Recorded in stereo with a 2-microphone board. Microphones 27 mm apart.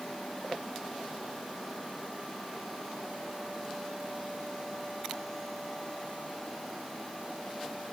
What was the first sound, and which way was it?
Only background noise.